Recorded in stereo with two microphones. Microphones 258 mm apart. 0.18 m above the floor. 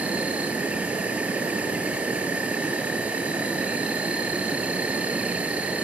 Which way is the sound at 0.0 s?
5° right (ahead or behind).